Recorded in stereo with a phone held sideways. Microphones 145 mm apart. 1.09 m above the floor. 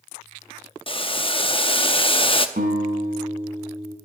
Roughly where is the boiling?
Left.